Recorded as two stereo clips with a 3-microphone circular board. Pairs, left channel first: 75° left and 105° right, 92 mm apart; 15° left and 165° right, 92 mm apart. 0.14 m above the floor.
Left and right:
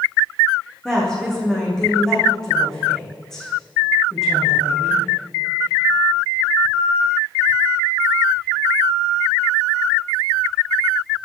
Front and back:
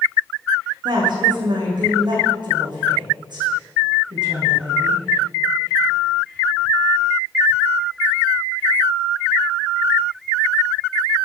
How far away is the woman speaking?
About 7.5 m.